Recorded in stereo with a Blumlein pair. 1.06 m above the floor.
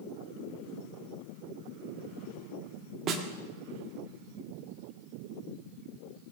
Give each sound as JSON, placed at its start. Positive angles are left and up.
{"t": 3.1, "sound": "a snare drum", "azimuth_deg": -30, "distance_m": 1.6}